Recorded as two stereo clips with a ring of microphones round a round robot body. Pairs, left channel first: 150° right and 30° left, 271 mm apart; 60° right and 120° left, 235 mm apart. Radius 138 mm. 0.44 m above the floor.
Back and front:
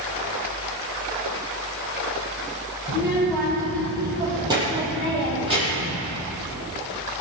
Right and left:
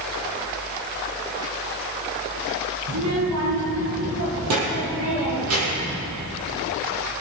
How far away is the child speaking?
About 7 m.